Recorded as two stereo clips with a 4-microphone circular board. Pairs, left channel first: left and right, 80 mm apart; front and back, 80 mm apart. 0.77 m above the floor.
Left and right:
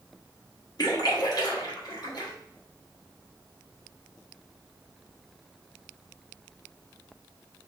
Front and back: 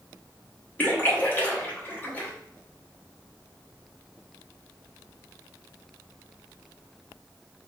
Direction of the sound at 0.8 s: 65° left.